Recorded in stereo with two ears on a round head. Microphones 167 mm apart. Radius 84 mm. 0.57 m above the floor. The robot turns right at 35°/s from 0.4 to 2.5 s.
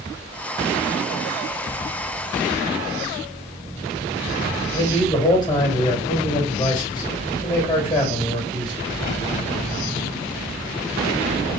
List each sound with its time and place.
4.7 s a man speaking: 25° left (ahead or behind), 3 m